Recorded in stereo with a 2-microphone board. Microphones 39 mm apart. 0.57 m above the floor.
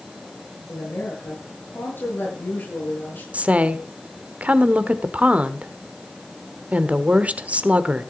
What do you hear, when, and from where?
0.7 s a woman speaking: 60° left (ahead or behind), 9 m
3.3 s a woman speaking: 35° right (ahead or behind), 1.3 m